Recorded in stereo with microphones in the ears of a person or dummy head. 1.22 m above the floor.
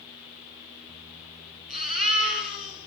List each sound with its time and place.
1.7 s a baby crying: 45° right (ahead or behind), 7.5 m